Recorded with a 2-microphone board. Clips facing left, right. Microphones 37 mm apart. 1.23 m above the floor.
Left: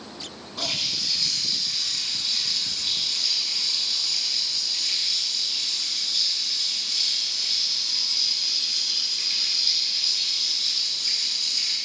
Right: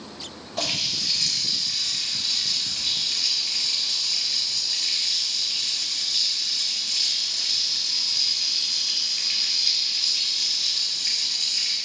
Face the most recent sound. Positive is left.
turn(degrees=-80)